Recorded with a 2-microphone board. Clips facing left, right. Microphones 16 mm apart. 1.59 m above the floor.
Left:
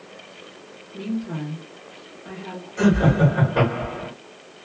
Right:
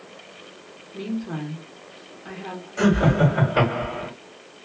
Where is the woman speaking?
30° right (ahead or behind), 1.3 m.